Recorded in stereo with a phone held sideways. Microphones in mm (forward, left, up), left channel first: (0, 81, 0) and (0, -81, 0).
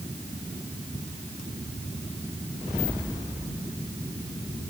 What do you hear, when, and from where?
Only background noise.